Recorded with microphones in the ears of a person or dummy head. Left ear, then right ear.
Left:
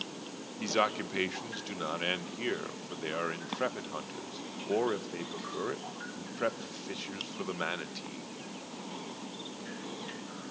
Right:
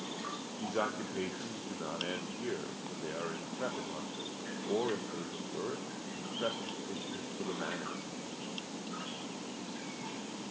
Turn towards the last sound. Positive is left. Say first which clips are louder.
# left 6 dB
turn(degrees=70)  # may be behind; listen again after turning